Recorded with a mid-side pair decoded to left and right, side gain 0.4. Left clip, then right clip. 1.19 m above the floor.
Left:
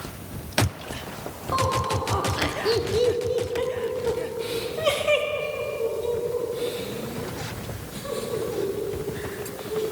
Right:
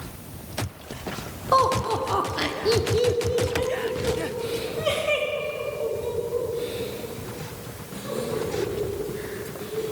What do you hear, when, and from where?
1.5 s laughter: 65° right, 0.7 m; by 9.8 s 55° left, 4.5 m